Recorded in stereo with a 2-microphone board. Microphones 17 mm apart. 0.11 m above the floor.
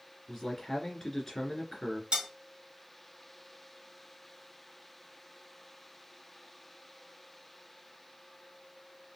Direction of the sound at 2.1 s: 60° right (ahead or behind).